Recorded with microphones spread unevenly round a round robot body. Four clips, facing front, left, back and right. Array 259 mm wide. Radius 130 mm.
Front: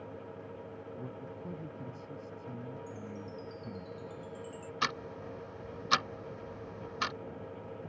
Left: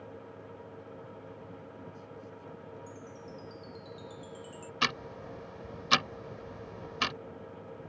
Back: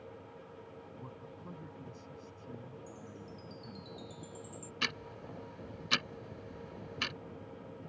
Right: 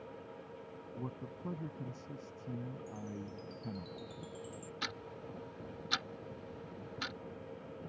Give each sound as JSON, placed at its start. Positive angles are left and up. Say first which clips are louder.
{"t": 1.0, "sound": "a man speaking", "louder": "right 1 dB, front 6 dB", "azimuth_deg": -65}
{"t": 2.9, "sound": "a chime", "louder": "right 1 dB, front 5 dB", "azimuth_deg": 135}
{"t": 4.8, "sound": "ticking", "louder": "left 12 dB, front 6 dB", "azimuth_deg": 90}